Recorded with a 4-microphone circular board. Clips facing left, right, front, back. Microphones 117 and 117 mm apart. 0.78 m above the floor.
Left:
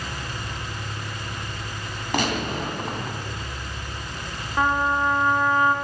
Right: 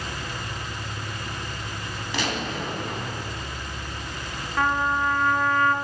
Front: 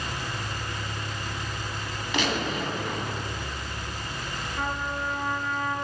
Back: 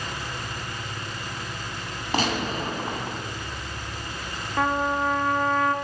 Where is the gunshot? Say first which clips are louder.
Left 4 dB, back 2 dB; 130° left, 3 m.